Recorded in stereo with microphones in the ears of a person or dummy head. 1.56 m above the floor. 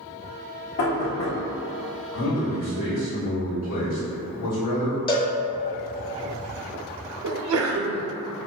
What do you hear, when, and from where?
0.8 s knocking: 60° left (ahead or behind), 1.0 m
2.1 s a man speaking: 60° left (ahead or behind), 1.0 m
5.1 s a cowbell: 25° left (ahead or behind), 0.7 m
7.2 s a sneeze: 85° right, 0.6 m